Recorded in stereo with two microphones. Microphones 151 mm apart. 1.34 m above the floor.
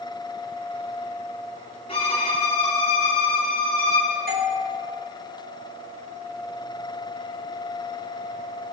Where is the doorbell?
75° right (ahead or behind), 1.5 m.